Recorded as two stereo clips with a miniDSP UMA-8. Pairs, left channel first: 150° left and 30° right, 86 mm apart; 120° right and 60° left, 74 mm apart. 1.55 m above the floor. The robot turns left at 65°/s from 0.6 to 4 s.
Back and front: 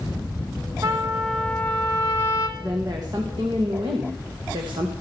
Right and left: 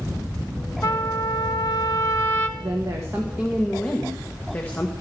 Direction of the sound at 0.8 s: 85° right.